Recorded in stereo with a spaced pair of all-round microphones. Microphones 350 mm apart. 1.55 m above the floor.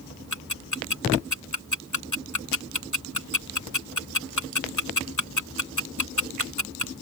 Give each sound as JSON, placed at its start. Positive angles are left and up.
{"t": 0.3, "sound": "ticking", "side_deg": 60}